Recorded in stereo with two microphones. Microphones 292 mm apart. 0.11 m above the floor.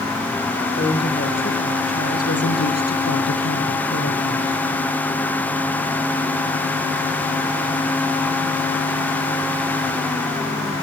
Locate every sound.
0.8 s a woman speaking: 35° left (ahead or behind), 4.5 m; by 4.6 s 60° left (ahead or behind), 3.5 m